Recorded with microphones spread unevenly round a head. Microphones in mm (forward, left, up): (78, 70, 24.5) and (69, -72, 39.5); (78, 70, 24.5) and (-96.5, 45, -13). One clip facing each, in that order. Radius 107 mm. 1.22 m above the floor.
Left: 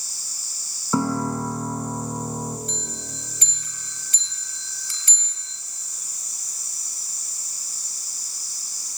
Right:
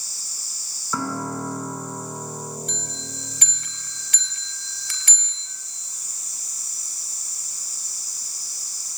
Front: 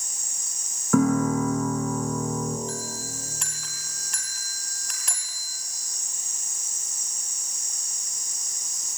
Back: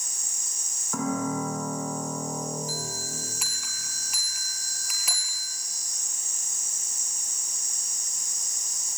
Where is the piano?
20° left, 4 m.